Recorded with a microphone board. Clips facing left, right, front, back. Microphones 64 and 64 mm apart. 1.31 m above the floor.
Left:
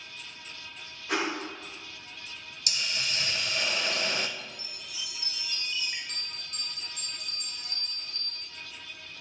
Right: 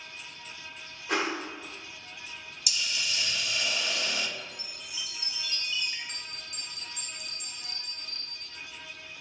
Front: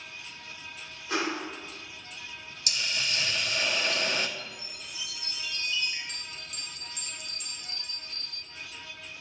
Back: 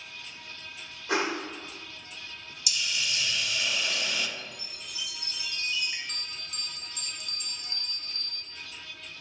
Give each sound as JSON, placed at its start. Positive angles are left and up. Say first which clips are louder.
{"t": 1.1, "sound": "a whoosh", "louder": "right 1 dB, back 2 dB", "azimuth_deg": 180, "distance_m": 2.0}
{"t": 2.7, "sound": "a hiss", "louder": "even, even", "azimuth_deg": 45, "distance_m": 0.7}
{"t": 4.4, "sound": "a chime", "louder": "even, front 1 dB", "azimuth_deg": 150, "distance_m": 2.0}
{"t": 6.1, "sound": "a bell", "louder": "even, back 1 dB", "azimuth_deg": -170, "distance_m": 1.8}